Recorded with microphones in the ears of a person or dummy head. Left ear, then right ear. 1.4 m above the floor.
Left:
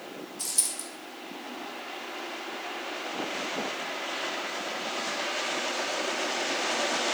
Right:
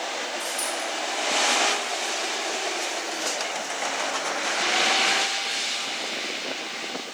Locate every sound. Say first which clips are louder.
0.4 s a dropped coin: right 6 dB; 50° left (ahead or behind), 1.9 m